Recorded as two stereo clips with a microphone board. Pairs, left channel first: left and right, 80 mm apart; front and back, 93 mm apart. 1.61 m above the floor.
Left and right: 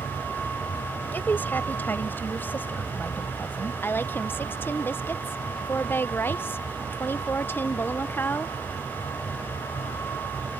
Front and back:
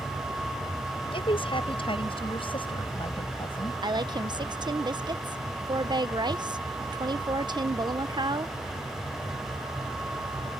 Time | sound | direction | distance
1.1 | a woman speaking | 20° left | ?
3.8 | a woman speaking | 150° left | ?